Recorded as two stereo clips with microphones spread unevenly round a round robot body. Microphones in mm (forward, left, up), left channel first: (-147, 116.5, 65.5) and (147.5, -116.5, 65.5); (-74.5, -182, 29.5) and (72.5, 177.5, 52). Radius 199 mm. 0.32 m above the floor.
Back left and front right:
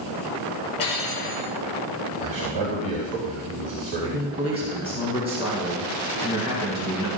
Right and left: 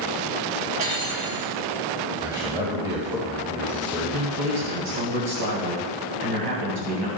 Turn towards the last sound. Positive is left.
turn(degrees=35)